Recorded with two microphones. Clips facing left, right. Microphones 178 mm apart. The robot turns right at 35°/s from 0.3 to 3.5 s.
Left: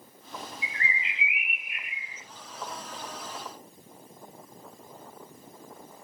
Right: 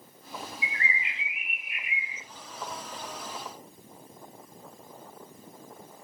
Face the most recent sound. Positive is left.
turn(degrees=-120)